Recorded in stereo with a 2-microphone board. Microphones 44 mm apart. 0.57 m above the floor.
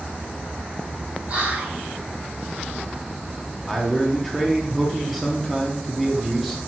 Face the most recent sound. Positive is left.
turn(degrees=0)  # may be behind; listen again after turning